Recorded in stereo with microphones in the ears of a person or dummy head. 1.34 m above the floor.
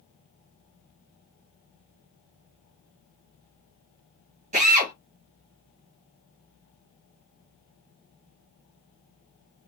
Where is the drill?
35° right (ahead or behind), 1.1 m.